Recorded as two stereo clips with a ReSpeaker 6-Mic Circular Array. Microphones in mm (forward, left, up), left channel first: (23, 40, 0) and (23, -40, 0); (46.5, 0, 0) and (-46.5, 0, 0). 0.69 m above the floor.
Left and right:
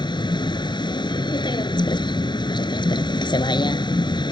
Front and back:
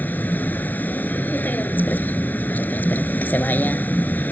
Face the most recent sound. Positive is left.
turn(degrees=70)